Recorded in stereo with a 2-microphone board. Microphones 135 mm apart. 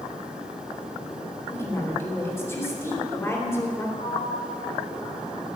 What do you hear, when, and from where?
1.5 s a woman speaking: 20° left (ahead or behind), 3 m
4.0 s a sliding door: 80° left, 5 m